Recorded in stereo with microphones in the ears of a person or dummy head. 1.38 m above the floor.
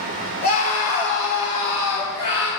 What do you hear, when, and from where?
0.4 s a scream: 40° left (ahead or behind), 5 m; by 2.5 s 35° left (ahead or behind), 6.5 m